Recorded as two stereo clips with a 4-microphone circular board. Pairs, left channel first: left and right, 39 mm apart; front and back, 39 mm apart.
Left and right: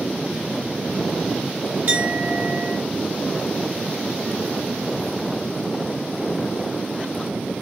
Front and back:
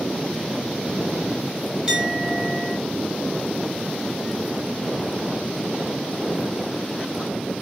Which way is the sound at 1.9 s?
115° right.